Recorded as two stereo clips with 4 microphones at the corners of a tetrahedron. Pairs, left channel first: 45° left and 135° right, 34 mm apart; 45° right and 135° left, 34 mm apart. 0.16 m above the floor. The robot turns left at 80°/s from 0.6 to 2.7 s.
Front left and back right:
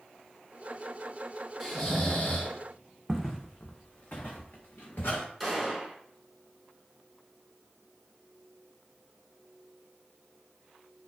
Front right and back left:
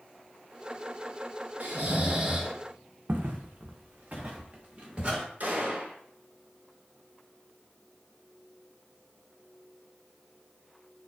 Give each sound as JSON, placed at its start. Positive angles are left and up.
{"t": 1.6, "sound": "snoring", "azimuth_deg": 135, "distance_m": 0.8}
{"t": 3.1, "sound": "footsteps", "azimuth_deg": 130, "distance_m": 0.6}
{"t": 5.4, "sound": "a gunshot", "azimuth_deg": 130, "distance_m": 0.8}